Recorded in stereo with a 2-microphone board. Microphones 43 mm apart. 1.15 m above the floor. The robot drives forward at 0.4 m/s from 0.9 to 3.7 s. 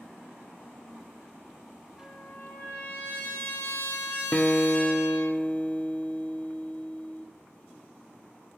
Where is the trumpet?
40° left (ahead or behind), 1.9 m; by 5.3 s 60° left (ahead or behind), 1.5 m.